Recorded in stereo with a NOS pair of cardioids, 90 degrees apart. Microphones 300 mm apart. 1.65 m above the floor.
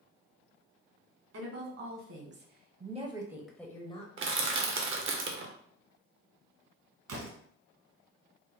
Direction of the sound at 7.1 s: 55° right.